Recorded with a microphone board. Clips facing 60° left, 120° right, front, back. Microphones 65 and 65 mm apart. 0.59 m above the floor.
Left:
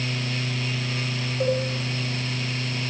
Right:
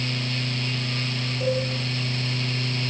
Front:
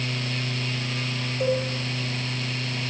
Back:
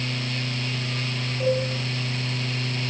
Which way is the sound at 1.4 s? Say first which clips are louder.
Left 1 dB, back 1 dB; 85° left.